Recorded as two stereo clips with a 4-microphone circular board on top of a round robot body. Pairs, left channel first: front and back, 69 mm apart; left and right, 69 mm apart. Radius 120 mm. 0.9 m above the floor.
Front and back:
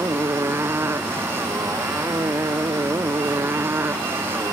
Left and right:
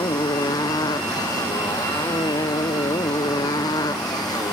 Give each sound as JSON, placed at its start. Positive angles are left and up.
{"t": 0.0, "sound": "a motorcycle", "azimuth_deg": 120}